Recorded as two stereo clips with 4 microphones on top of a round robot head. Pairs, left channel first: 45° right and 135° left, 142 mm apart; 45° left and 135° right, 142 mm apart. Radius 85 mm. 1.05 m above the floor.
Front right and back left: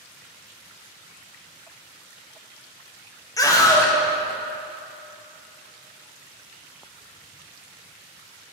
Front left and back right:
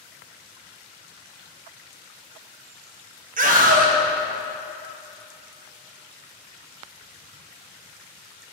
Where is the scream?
110° right, 1.2 m.